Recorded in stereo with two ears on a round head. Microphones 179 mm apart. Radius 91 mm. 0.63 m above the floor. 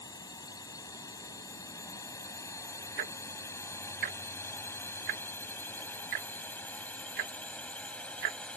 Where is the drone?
20° left (ahead or behind); by 8.6 s 5° left (ahead or behind).